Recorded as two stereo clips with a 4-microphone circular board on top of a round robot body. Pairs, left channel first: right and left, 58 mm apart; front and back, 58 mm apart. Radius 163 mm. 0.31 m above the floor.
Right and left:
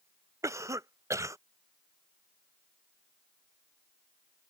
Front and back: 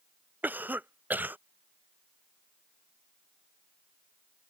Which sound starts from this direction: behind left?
A cough, at 0.4 s.